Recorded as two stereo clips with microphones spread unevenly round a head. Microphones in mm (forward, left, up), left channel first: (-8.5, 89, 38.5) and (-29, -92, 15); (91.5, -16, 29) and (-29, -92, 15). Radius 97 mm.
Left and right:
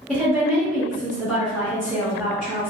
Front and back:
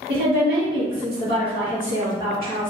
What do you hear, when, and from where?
0.1 s a woman speaking: 170° left, 1.3 m